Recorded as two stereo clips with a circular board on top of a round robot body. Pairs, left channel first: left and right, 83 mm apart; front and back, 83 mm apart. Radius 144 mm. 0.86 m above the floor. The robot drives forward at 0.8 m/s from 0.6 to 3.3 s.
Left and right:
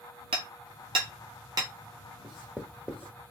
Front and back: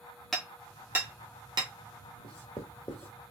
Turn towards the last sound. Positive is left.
turn(degrees=-155)